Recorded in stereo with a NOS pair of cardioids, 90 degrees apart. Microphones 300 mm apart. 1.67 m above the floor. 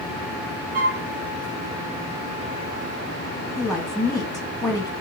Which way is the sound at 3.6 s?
10° left.